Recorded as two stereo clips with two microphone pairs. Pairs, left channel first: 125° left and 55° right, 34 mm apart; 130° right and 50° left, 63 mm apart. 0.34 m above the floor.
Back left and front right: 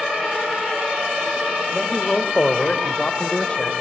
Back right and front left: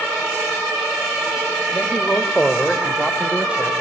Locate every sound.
1.7 s a man speaking: 155° right, 1.5 m; by 3.7 s 105° left, 1.6 m